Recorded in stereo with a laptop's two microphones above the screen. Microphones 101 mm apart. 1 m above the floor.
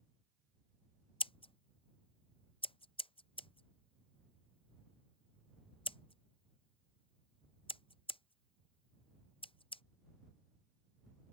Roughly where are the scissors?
Left.